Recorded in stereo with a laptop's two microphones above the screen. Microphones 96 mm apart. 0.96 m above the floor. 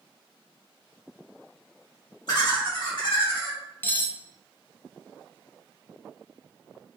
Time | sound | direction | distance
2.3 | laughter | 45° left (ahead or behind) | 1.4 m
3.8 | cutlery clinking | 20° left (ahead or behind) | 0.5 m